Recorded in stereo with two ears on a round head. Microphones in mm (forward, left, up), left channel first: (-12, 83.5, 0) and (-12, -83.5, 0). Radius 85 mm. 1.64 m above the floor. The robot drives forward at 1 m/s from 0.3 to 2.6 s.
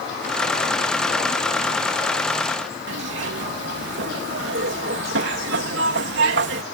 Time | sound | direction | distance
2.9 | a zipper | 70° right (ahead or behind) | ?